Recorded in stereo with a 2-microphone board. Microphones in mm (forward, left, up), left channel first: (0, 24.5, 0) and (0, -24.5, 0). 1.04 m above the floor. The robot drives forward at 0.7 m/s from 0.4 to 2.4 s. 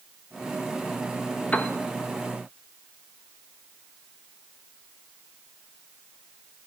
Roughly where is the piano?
Left.